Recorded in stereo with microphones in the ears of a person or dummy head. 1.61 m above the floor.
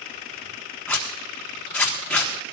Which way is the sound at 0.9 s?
10° left (ahead or behind).